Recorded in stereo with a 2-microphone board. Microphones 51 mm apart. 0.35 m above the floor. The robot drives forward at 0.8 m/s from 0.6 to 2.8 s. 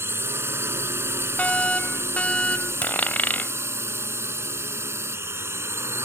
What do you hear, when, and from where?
0.0 s a drone: 55° right (ahead or behind); by 6.1 s 60° right (ahead or behind)
1.4 s a fire alarm: 25° left (ahead or behind)
2.8 s a dropped coin: 35° left (ahead or behind)